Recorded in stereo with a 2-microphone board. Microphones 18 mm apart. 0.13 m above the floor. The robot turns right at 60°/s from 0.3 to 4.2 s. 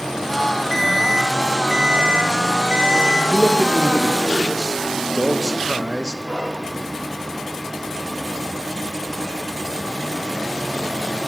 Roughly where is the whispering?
Right.